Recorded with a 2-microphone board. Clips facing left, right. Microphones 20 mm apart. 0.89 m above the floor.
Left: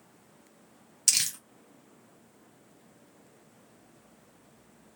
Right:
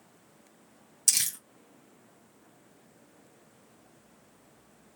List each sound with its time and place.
1.1 s crumpling: 20° left (ahead or behind), 2 m